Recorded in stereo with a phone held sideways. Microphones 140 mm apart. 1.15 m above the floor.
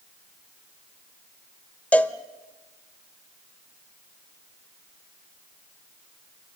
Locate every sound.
1.9 s a cowbell: 10° left (ahead or behind), 1.0 m